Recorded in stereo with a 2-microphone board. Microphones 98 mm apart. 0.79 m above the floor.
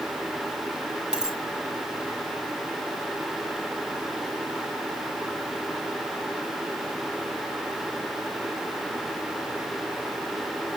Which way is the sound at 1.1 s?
5° right (ahead or behind).